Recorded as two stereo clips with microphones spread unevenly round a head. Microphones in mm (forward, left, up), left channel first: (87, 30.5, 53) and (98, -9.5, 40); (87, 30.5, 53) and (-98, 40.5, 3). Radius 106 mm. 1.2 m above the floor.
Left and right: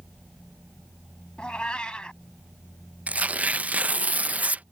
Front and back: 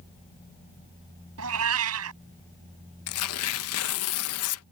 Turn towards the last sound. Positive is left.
turn(degrees=-15)